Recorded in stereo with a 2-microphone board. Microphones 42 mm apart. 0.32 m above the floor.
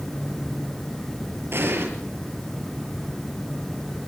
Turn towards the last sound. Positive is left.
turn(degrees=-75)  # may be behind; listen again after turning